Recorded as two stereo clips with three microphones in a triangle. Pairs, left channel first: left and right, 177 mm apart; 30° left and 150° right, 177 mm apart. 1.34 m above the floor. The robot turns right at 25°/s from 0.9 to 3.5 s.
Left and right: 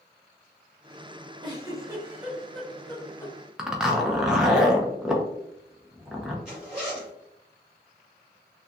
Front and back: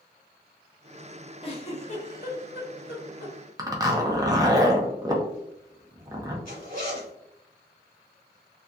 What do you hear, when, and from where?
1.4 s a giggle: 30° right, 0.7 m; by 3.4 s 20° left, 0.7 m
3.6 s a zipper: 170° right, 0.5 m
6.5 s a zipper: 5° right, 1.5 m